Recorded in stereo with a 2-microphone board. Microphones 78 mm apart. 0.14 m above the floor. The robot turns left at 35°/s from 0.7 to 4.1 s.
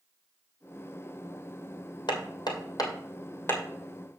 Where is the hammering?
75° left (ahead or behind), 2.0 m; by 3.6 s 25° left (ahead or behind), 2.0 m.